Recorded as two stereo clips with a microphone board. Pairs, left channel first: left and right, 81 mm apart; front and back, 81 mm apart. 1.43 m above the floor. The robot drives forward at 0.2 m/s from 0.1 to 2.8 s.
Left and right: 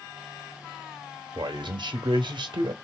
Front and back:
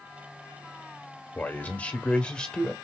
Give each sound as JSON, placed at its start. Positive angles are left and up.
{"t": 1.4, "sound": "a man speaking", "azimuth_deg": -70, "distance_m": 1.1}